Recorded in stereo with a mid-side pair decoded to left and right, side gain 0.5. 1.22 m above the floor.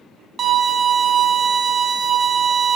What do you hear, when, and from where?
0.4 s a violin: 45° right, 1.0 m